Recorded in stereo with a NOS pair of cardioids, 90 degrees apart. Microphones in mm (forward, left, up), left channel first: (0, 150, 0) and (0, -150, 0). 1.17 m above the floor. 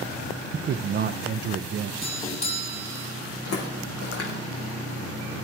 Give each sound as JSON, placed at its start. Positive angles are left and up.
{"t": 0.5, "sound": "a man speaking", "azimuth_deg": -40, "distance_m": 0.5}
{"t": 2.0, "sound": "a doorbell", "azimuth_deg": 20, "distance_m": 3.0}
{"t": 3.5, "sound": "footsteps", "azimuth_deg": 55, "distance_m": 4.5}